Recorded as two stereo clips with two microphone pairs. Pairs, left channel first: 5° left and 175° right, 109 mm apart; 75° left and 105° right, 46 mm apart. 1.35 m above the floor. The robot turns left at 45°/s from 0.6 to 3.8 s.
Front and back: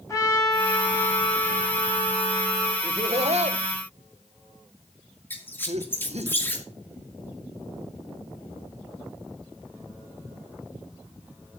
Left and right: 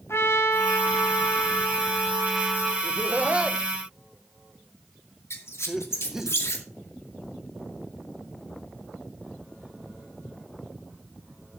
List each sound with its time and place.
0.1 s a trumpet: 65° left, 5.5 m; by 2.7 s 30° right, 5.5 m
2.8 s laughter: 140° right, 1.2 m; by 6.3 s straight behind, 1.2 m
5.3 s a squeak: 75° left, 2 m